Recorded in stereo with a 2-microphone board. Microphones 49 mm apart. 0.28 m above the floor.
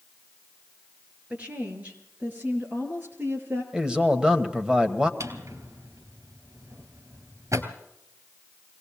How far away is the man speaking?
About 1.3 m.